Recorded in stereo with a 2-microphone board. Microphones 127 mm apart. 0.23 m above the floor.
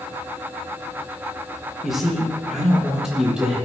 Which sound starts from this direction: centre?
A man speaking, at 1.8 s.